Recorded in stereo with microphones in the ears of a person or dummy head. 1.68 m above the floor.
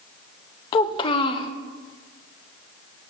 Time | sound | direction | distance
0.7 | a child speaking | 30° left (ahead or behind) | 0.6 m